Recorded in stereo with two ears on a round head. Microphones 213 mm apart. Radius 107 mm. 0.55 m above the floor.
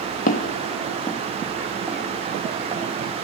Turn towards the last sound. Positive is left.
turn(degrees=-20)  # may be behind; listen again after turning